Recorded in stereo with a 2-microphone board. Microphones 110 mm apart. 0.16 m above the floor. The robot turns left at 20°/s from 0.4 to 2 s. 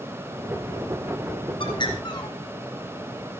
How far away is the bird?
About 3 m.